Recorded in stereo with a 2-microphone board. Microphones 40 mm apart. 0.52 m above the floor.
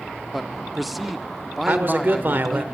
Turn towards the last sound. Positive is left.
turn(degrees=-50)  # may be behind; listen again after turning